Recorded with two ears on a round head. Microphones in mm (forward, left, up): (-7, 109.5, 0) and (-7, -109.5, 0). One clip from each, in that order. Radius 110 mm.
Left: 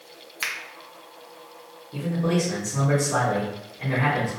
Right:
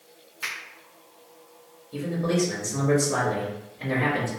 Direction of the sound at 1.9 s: 15° right (ahead or behind).